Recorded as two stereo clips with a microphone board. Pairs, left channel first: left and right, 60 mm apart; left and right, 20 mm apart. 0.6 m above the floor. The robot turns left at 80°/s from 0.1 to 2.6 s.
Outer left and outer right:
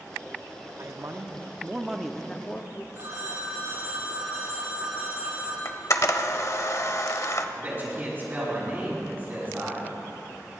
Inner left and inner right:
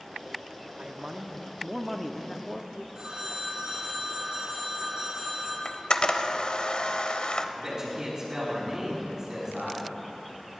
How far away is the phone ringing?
About 4.5 m.